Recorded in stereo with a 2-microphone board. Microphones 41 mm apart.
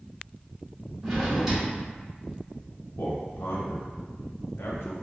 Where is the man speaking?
85° left, 0.9 m.